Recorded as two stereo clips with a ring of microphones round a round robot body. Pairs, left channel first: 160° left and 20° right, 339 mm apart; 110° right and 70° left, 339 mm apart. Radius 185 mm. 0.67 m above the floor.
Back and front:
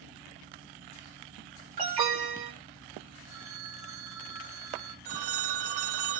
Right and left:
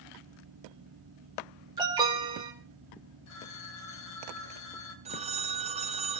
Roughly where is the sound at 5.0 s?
Ahead.